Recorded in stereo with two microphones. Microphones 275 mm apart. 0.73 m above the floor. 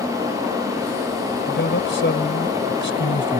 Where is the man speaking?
45° left (ahead or behind).